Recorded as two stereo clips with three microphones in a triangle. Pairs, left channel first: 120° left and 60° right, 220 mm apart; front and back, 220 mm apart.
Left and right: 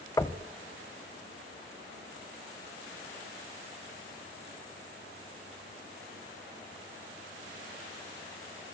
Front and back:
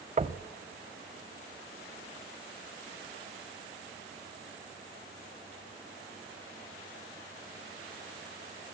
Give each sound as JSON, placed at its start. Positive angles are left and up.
{"t": 0.2, "sound": "knocking", "azimuth_deg": 180, "distance_m": 1.0}